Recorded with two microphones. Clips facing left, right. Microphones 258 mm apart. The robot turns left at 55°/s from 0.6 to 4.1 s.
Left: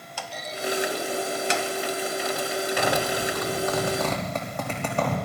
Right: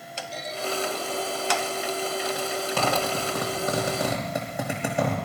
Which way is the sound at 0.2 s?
25° right (ahead or behind).